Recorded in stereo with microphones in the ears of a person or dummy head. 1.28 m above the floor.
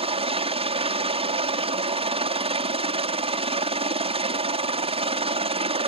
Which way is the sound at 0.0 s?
25° right (ahead or behind).